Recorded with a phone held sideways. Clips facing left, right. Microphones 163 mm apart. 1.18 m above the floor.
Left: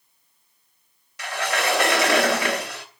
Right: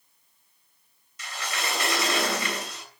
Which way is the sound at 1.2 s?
75° left (ahead or behind).